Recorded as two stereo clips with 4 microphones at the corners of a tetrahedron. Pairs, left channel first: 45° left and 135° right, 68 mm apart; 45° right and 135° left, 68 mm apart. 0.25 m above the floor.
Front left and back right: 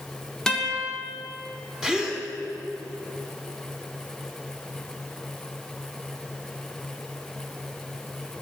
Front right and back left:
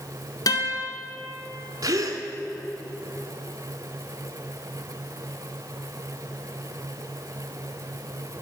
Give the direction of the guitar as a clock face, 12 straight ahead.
1 o'clock.